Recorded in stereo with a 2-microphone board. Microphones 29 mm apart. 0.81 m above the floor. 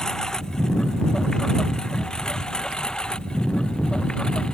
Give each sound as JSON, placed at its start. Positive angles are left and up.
{"t": 0.0, "sound": "a lawn mower", "side_deg": 25}